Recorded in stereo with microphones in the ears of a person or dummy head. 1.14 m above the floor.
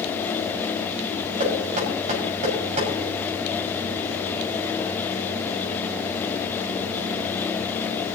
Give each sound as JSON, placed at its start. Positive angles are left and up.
{"t": 1.4, "sound": "knocking", "side_deg": -40, "distance_m": 6.5}